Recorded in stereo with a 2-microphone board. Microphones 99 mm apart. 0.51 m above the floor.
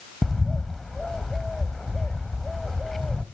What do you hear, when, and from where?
0.2 s a bird: 5° left (ahead or behind), 1.1 m